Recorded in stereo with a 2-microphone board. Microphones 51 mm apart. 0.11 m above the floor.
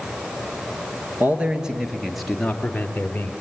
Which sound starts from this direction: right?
A man speaking, at 1.2 s.